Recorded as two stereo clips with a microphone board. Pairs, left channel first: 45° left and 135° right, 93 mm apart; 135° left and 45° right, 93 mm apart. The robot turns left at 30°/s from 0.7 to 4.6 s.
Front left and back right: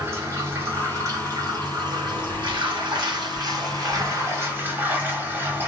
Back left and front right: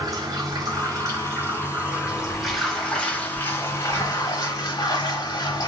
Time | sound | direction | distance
0.0 | running water | 80° right | 1.2 m